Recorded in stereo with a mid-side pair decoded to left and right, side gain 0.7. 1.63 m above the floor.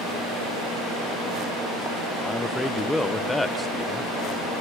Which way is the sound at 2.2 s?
5° left.